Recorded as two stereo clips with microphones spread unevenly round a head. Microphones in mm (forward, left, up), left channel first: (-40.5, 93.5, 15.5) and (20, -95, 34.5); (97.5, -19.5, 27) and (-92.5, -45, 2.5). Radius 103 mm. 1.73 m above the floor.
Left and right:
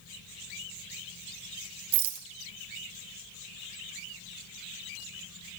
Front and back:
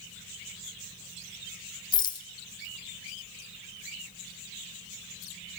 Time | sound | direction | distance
1.9 | a rattle | 55° right | 0.6 m